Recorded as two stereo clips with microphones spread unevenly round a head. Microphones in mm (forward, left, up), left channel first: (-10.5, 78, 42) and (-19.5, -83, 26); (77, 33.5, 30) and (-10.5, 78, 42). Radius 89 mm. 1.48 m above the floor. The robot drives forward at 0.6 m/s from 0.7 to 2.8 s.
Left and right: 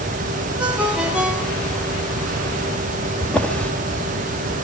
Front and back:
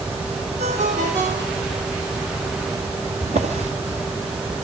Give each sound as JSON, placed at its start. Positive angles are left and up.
{"t": 0.6, "sound": "a ringtone", "azimuth_deg": -175, "distance_m": 2.0}
{"t": 3.2, "sound": "a drawer", "azimuth_deg": 170, "distance_m": 1.7}